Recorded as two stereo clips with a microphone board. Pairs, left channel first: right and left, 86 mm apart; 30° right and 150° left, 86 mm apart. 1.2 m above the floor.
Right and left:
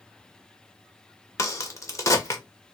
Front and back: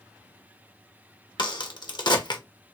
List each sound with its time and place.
1.4 s a crack: 40° right, 0.8 m